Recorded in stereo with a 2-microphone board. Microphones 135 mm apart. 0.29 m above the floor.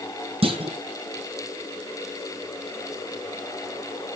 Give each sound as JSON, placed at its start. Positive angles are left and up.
{"t": 0.4, "sound": "a clunk", "side_deg": -45, "distance_m": 1.8}